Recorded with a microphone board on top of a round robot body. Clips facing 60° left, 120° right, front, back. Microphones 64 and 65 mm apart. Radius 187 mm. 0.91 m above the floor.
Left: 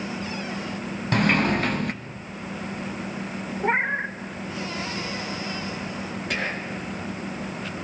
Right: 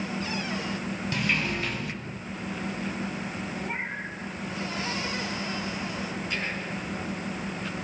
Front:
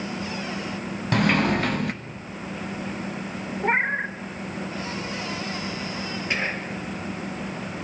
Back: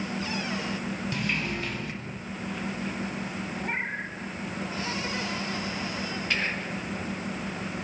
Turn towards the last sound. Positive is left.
turn(degrees=70)